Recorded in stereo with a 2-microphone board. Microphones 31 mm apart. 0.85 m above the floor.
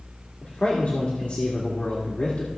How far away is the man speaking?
About 1.8 m.